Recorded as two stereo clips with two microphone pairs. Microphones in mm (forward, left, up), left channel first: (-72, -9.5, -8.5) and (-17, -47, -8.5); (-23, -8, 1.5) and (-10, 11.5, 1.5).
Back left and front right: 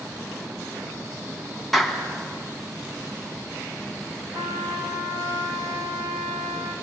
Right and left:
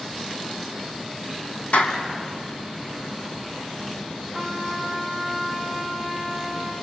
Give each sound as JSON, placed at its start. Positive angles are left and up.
{"t": 1.7, "sound": "a clap", "azimuth_deg": -125, "distance_m": 3.0}
{"t": 4.3, "sound": "a trumpet", "azimuth_deg": -60, "distance_m": 6.5}